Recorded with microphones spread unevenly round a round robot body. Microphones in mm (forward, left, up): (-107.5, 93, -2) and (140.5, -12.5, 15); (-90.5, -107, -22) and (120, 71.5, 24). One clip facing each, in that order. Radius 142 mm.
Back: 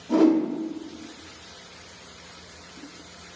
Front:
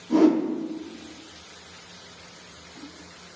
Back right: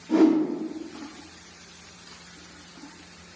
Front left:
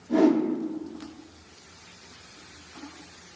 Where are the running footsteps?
I don't hear running footsteps.